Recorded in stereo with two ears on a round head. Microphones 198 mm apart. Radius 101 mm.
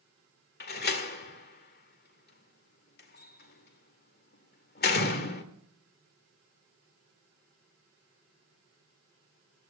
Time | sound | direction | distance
0.6 | a door slam | 50° left (ahead or behind) | 2.0 m